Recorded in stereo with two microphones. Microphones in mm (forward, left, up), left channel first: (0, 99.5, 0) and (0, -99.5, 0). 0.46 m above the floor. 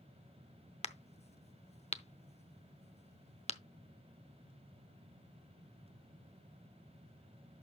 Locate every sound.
0.8 s a crack: 30° left (ahead or behind), 0.7 m